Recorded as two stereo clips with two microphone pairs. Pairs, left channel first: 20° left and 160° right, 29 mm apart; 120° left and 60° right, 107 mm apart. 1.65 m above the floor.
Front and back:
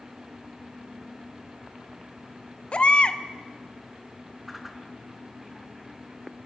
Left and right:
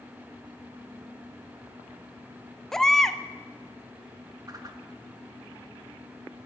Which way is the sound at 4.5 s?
80° right.